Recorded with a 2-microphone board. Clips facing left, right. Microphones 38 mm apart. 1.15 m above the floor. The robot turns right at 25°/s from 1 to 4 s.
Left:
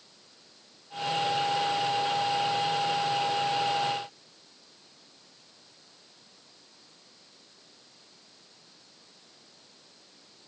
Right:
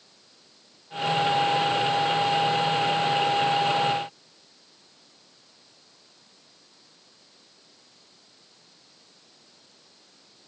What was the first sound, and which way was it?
Only background noise.